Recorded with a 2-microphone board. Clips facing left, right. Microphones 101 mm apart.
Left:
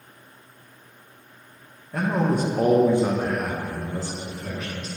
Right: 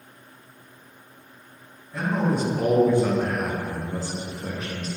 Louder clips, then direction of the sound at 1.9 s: Left 1 dB; 70° left (ahead or behind).